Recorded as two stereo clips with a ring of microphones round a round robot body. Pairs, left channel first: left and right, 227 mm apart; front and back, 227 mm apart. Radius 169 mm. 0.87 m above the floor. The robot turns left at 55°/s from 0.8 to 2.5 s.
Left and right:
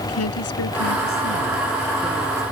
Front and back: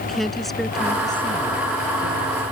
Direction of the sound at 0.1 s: 90° left.